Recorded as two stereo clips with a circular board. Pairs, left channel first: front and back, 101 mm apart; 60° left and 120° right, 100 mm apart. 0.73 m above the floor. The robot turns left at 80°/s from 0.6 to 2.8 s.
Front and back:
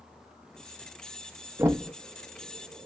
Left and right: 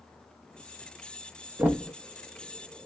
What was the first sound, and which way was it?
Knocking, straight behind.